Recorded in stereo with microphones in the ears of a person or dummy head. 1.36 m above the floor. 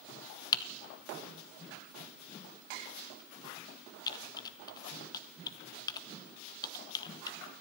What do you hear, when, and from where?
0.5 s typing on a keyboard: 25° left (ahead or behind), 1.1 m